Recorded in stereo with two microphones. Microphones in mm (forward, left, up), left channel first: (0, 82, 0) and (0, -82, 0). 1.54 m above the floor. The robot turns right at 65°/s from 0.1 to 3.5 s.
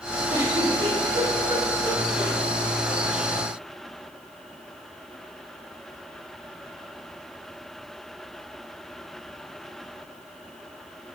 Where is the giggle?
10° right (ahead or behind), 1.1 m; by 2.3 s 20° right (ahead or behind), 1.1 m.